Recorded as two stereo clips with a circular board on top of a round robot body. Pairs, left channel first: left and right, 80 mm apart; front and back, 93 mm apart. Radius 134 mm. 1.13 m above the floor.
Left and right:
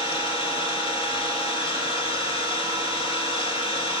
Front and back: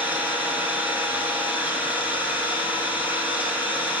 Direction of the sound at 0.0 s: 105° left.